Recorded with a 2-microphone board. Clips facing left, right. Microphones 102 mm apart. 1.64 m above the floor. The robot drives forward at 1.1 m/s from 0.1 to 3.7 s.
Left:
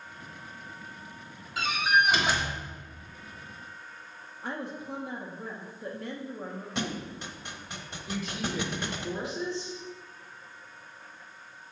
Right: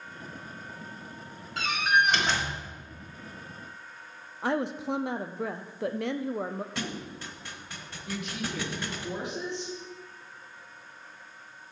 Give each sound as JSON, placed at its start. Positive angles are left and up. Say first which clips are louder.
{"t": 1.6, "sound": "a door slam", "louder": "even", "side_deg": 5, "distance_m": 2.0}
{"t": 4.4, "sound": "a woman speaking", "louder": "right 8 dB", "side_deg": -80, "distance_m": 0.6}
{"t": 6.8, "sound": "a thud", "louder": "left 2 dB", "side_deg": 20, "distance_m": 1.0}
{"t": 8.1, "sound": "a woman speaking", "louder": "left 1 dB", "side_deg": -75, "distance_m": 3.5}